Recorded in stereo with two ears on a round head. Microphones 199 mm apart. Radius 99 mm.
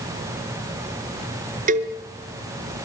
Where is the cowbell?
35° right (ahead or behind), 2.5 m.